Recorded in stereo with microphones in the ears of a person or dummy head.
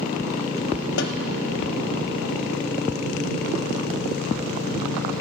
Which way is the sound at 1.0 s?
65° left (ahead or behind).